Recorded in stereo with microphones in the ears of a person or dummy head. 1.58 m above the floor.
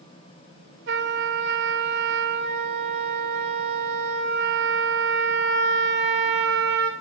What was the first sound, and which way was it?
A trumpet, 65° right (ahead or behind).